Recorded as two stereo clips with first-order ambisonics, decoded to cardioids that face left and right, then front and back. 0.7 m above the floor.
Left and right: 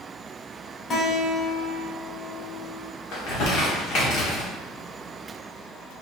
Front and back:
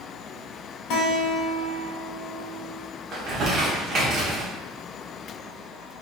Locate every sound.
0.9 s a guitar: 30° left, 1.9 m
3.1 s crumpling: 125° left, 1.4 m